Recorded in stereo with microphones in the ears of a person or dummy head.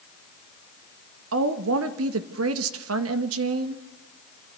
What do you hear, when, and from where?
1.3 s a woman speaking: 75° right (ahead or behind), 1.6 m